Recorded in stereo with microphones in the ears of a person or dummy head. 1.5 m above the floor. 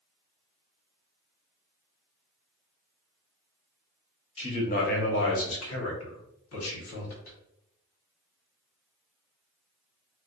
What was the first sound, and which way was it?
A man speaking, 30° left (ahead or behind).